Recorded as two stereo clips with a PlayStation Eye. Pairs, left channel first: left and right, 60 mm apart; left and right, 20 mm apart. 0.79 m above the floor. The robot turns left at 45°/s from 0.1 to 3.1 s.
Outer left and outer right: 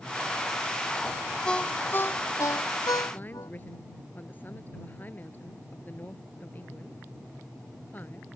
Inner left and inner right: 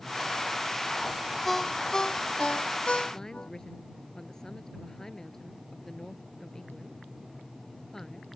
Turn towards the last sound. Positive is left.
turn(degrees=30)  # may be behind; listen again after turning